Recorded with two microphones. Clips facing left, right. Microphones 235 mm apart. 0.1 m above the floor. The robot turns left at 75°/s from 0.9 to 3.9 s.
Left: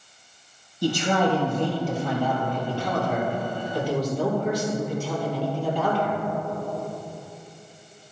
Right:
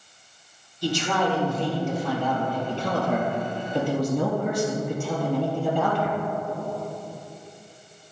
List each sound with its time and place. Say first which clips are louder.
0.8 s a man speaking: left 3 dB; 115° left, 2.5 m; by 6.2 s 110° right, 2.5 m